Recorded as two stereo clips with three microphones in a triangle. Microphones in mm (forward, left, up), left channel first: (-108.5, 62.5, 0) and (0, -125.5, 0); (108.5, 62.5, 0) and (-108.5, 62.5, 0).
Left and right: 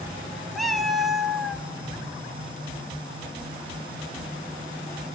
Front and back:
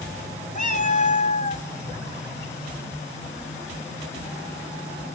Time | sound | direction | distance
0.6 | a cat meowing | 30° left | 0.5 m